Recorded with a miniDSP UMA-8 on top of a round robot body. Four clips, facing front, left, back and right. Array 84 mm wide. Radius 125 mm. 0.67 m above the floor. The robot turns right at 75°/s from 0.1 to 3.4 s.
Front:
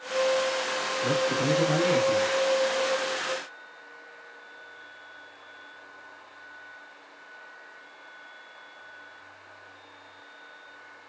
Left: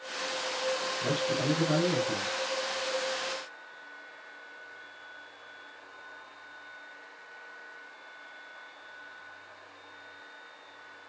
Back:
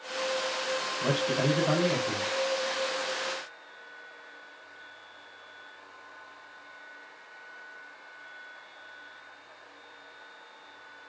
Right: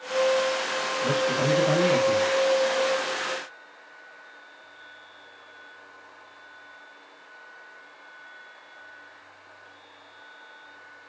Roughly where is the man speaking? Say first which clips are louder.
Right 6 dB, front 2 dB; behind.